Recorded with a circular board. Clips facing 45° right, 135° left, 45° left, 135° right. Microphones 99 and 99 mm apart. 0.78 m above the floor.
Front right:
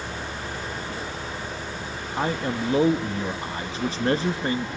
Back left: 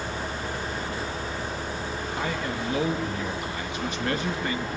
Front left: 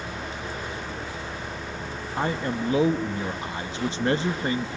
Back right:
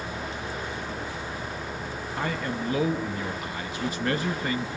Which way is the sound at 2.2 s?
5° right.